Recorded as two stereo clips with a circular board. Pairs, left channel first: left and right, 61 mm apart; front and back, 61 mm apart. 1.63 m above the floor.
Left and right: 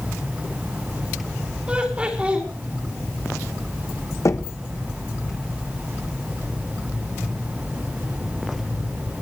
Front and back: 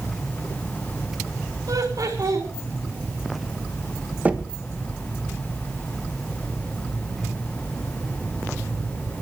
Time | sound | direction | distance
1.7 | laughter | 160° right | 4 m
4.2 | knocking | 120° left | 1.2 m